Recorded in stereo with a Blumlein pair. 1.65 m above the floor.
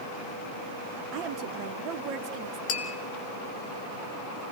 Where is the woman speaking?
35° right, 1.4 m.